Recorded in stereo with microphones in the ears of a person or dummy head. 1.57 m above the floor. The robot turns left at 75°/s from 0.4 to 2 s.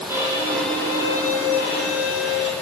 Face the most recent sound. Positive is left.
turn(degrees=75)